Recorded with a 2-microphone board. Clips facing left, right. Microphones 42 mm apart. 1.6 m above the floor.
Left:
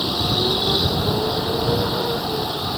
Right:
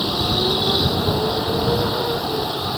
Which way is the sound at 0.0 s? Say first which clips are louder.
Right 1 dB; 5° right (ahead or behind).